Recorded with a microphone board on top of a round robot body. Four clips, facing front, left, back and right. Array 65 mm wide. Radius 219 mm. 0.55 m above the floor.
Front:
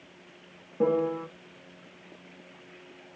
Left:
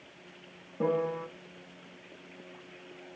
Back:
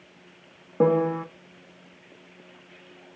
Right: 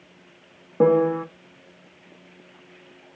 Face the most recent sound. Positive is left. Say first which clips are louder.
# right 12 dB, back 4 dB
turn(degrees=-125)